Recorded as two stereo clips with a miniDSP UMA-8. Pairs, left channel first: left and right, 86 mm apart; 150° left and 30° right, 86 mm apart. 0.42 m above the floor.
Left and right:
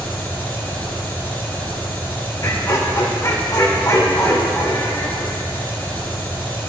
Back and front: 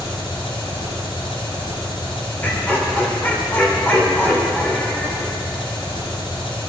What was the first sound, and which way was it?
An engine running, 160° left.